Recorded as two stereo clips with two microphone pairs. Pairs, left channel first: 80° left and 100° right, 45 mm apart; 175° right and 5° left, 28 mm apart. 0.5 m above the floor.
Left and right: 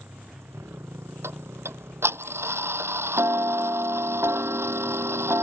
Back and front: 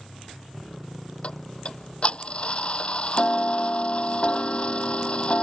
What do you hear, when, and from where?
0.0 s a motorcycle: 85° right
1.2 s ticking: 120° right